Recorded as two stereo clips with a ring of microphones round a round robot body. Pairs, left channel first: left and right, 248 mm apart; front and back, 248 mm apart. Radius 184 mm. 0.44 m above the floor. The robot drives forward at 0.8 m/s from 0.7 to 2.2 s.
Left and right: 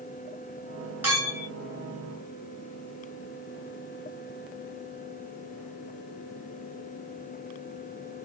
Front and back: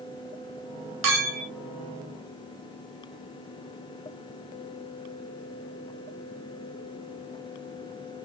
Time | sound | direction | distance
1.0 | a clink | 175° right | 1.6 m